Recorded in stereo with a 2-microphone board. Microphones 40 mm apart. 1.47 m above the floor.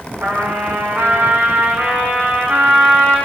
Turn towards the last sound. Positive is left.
turn(degrees=-80)